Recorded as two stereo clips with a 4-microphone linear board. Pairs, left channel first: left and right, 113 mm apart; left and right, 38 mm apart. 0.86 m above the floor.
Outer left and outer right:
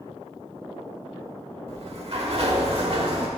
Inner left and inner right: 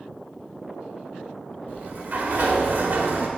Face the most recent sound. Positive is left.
turn(degrees=-60)  # may be behind; listen again after turning